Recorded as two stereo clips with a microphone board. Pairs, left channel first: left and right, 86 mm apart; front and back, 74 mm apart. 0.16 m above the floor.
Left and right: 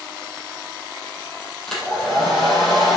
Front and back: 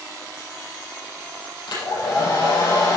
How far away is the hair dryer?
About 4.5 m.